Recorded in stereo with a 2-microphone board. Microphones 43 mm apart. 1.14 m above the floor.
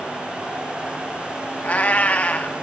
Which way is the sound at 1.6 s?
40° left (ahead or behind).